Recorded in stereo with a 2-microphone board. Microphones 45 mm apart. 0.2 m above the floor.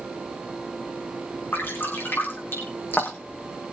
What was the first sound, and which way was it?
Dripping, 55° left (ahead or behind).